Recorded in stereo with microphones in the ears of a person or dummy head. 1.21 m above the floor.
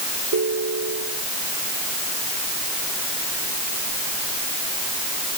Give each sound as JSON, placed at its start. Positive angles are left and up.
{"t": 0.3, "sound": "a ringtone", "side_deg": -75}